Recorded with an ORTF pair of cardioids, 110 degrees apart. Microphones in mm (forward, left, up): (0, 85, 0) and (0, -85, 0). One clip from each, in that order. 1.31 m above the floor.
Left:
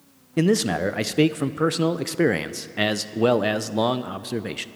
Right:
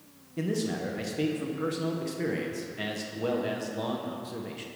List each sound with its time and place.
0.4 s a man speaking: 65° left, 0.6 m